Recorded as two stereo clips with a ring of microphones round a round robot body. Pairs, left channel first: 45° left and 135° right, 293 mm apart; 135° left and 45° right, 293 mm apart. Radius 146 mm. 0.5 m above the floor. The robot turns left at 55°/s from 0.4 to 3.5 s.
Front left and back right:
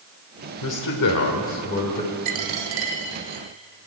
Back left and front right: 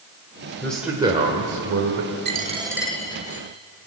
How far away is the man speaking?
About 1.5 m.